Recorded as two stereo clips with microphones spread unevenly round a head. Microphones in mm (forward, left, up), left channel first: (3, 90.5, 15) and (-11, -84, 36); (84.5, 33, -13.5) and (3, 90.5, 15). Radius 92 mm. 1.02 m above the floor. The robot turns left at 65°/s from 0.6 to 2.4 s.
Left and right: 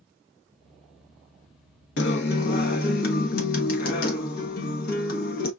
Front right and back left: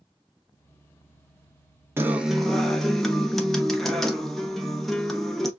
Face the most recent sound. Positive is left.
turn(degrees=50)